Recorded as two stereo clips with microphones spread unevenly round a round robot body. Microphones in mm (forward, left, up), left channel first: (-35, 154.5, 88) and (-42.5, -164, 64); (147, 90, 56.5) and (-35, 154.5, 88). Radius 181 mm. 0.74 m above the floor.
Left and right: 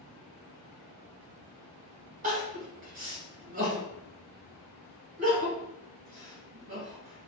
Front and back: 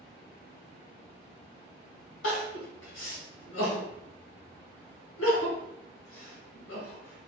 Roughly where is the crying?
Ahead right.